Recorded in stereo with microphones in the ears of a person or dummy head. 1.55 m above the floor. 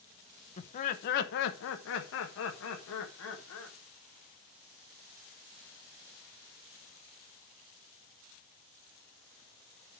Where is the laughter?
35° left (ahead or behind), 1.0 m; by 3.8 s 75° left (ahead or behind), 2 m.